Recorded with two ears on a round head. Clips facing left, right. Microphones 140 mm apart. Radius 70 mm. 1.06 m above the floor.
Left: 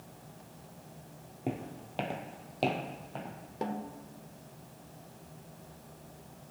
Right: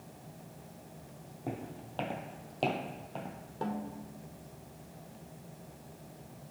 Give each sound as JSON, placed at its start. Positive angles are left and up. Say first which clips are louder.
{"t": 1.5, "sound": "footsteps", "louder": "left 3 dB", "side_deg": 30, "distance_m": 1.5}
{"t": 3.6, "sound": "a snare drum", "louder": "even", "side_deg": 20, "distance_m": 1.0}